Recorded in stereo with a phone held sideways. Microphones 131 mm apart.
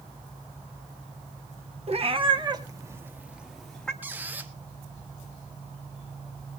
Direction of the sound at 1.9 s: 50° right (ahead or behind).